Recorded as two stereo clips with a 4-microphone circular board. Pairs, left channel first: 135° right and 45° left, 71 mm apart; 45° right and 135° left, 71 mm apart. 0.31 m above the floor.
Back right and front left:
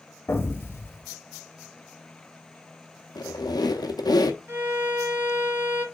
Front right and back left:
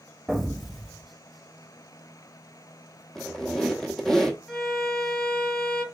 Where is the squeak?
125° right, 0.7 m.